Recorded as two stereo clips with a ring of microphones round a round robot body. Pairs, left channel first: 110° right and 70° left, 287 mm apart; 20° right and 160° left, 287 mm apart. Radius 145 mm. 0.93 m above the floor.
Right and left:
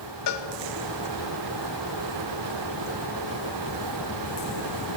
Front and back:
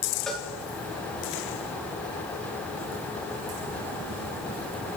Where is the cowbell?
110° right, 0.7 m.